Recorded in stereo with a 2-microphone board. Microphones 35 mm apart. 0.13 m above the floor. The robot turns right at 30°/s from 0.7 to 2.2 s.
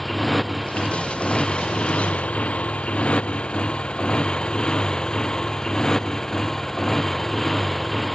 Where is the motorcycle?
5° left (ahead or behind).